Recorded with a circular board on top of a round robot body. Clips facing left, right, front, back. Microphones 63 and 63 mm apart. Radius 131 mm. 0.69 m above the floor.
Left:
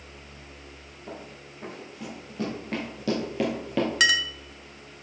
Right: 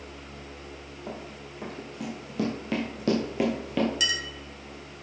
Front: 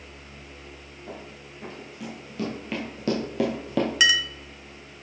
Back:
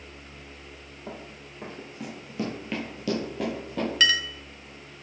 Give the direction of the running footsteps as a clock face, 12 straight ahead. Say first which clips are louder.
Right 1 dB, even; 4 o'clock.